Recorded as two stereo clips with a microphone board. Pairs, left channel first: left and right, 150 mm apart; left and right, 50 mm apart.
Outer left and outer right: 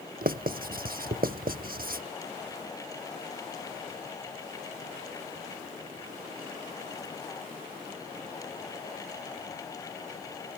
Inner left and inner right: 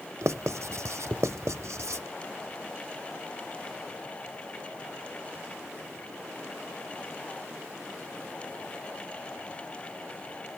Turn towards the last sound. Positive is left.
turn(degrees=-75)  # may be behind; listen again after turning